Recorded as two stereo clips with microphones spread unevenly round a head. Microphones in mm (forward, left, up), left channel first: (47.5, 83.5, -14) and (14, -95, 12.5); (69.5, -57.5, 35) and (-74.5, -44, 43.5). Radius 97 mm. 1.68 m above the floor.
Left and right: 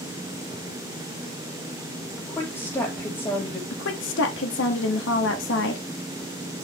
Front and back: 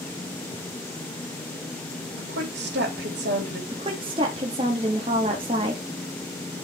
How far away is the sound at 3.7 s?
About 0.9 m.